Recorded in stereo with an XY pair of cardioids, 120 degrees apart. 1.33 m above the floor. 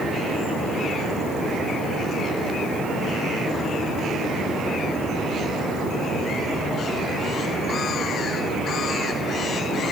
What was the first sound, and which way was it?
Only background noise.